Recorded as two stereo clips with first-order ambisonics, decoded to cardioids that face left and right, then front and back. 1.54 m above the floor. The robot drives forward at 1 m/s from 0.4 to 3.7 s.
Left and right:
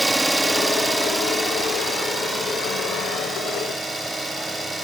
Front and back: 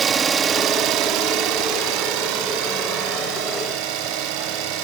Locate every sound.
0.0 s an engine running: 170° right, 1.0 m; by 4.8 s straight behind, 4 m